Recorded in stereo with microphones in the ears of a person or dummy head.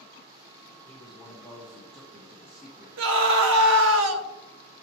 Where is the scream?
75° right (ahead or behind), 1.1 m.